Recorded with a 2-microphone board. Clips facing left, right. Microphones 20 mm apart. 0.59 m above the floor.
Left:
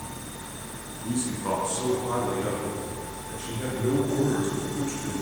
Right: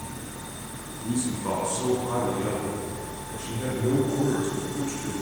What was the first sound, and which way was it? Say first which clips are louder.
A man speaking: right 1 dB; 10° left (ahead or behind).